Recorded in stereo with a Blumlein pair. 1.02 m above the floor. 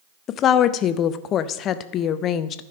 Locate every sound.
0.3 s a woman speaking: 30° left, 0.5 m